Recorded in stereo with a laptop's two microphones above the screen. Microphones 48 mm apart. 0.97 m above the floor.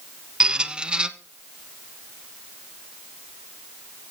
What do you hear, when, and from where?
0.4 s a squeak: 20° right (ahead or behind), 1.0 m